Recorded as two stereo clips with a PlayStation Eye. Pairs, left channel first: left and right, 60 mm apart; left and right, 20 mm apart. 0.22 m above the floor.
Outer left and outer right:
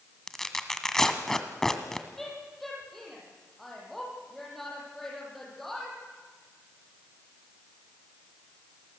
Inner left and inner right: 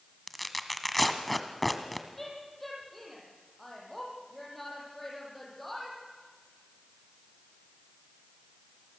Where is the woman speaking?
5° left (ahead or behind), 9.5 m.